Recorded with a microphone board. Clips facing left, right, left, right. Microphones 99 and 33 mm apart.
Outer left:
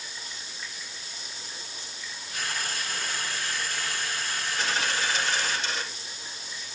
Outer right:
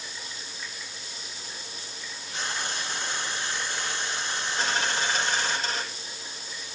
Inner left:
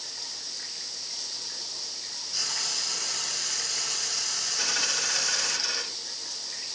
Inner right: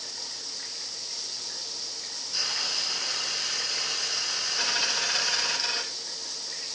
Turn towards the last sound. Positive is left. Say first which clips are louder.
# outer right 1 dB, inner right 1 dB
turn(degrees=-40)  # may be behind; listen again after turning